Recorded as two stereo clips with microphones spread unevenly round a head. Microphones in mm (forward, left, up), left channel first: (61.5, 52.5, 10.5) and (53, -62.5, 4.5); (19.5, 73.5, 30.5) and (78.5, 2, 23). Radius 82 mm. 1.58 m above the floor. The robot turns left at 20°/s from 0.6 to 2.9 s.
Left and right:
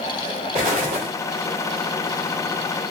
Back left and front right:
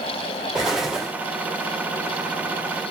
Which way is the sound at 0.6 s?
115° right.